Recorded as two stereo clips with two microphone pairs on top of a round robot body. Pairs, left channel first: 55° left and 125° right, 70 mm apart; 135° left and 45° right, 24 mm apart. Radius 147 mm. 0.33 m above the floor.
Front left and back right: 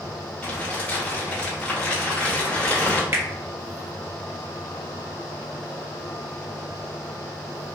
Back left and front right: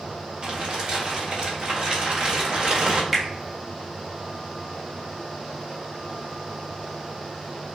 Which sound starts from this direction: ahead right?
Crumpling, at 0.4 s.